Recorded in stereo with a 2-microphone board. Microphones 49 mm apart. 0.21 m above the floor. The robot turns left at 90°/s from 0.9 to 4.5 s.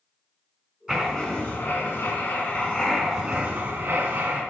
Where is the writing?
165° right, 2 m; by 4.4 s 120° right, 2 m.